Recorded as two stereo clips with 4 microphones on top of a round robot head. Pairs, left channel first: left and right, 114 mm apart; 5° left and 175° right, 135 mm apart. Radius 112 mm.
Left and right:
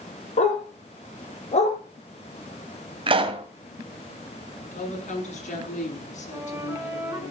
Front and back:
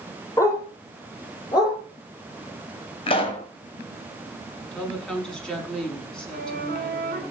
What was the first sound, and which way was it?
A dog barking, 75° left.